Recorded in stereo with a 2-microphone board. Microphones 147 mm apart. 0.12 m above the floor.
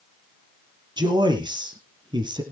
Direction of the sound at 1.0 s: 30° right (ahead or behind).